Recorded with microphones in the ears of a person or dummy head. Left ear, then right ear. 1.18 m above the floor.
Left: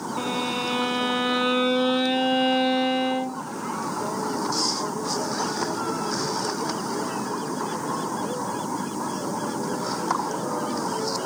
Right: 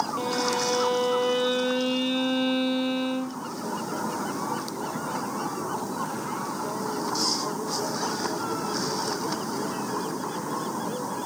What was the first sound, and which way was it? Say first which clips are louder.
A violin: right 1 dB; 10° left (ahead or behind).